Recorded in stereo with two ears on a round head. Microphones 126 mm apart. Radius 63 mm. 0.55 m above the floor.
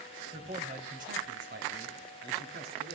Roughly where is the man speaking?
Right.